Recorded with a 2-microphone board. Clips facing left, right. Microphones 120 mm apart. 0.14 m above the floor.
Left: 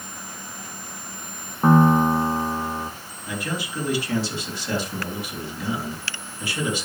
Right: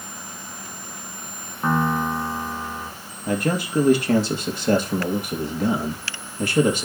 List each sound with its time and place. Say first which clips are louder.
1.6 s a piano: left 6 dB; 25° left (ahead or behind), 0.7 m
3.3 s a man speaking: right 7 dB; 50° right (ahead or behind), 3 m